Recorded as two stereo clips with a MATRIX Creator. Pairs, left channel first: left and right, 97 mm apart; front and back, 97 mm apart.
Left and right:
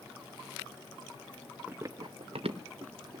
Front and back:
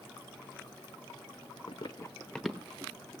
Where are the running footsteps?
15° right, 0.9 m; by 3.2 s 110° right, 2 m.